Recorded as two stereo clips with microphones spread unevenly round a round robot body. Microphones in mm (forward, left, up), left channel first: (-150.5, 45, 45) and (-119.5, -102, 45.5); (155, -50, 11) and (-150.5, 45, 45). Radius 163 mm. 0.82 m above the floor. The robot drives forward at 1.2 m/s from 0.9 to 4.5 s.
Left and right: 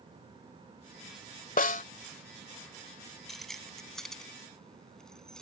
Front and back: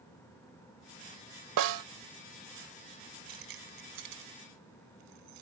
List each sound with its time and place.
1.6 s a snare drum: 130° left; by 1.8 s 135° left
3.3 s keys jangling: 170° right